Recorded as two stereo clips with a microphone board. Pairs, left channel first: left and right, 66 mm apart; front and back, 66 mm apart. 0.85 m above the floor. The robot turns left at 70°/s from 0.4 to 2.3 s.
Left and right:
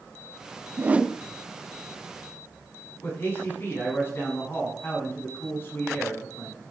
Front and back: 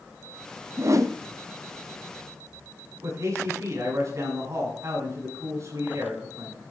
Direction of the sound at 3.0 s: 145° left.